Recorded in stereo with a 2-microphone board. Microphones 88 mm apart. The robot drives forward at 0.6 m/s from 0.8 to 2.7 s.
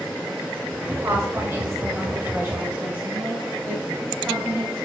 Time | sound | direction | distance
0.9 | a woman speaking | 35° right (ahead or behind) | 1.5 m